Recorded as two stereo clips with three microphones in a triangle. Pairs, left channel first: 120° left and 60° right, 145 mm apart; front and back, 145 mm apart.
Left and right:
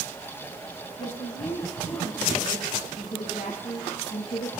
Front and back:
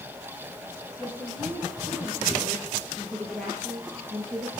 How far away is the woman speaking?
About 9.5 m.